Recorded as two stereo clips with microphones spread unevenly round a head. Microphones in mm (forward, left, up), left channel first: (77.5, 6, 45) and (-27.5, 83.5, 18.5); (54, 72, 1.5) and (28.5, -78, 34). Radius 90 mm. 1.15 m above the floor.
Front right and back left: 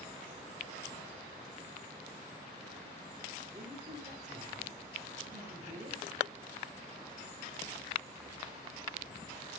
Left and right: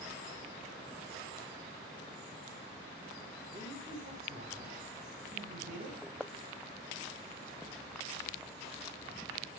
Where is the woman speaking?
150° right, 4.5 m.